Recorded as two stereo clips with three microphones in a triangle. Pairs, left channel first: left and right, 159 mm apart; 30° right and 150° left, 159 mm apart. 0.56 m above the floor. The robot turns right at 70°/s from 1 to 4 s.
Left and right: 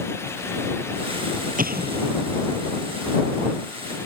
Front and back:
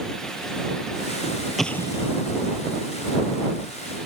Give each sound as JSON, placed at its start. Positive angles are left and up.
{"t": 1.6, "sound": "an explosion", "azimuth_deg": -120}